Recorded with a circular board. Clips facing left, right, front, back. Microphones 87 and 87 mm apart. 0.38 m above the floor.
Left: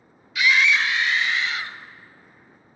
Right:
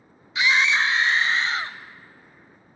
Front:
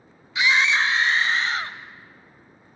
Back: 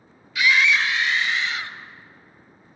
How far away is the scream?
About 1.0 m.